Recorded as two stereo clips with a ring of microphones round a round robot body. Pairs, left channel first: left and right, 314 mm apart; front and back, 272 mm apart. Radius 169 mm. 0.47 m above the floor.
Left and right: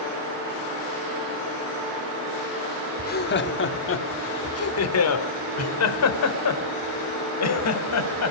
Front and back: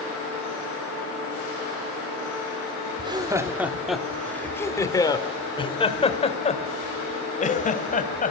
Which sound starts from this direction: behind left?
Laughter, at 3.0 s.